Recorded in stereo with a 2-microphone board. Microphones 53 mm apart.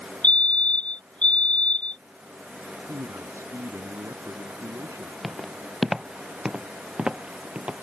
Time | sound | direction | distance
0.2 | a fire alarm | 25° left (ahead or behind) | ?
2.9 | a man speaking | 65° right (ahead or behind) | ?
5.2 | footsteps | centre (ahead or behind) | ?